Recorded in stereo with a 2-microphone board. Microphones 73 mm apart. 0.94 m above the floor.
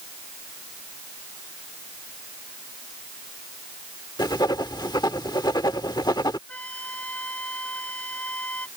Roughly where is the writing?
Left.